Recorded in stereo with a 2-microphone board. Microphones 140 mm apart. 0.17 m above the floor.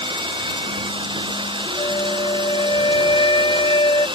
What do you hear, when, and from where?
0.0 s running water: 35° right (ahead or behind)
1.8 s a flute: 35° left (ahead or behind)